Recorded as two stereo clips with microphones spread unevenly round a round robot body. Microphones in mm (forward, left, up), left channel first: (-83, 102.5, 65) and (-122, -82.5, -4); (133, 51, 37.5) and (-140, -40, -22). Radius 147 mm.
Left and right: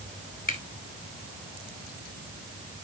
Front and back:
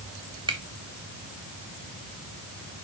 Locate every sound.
0.5 s a finger snap: 125° left, 2 m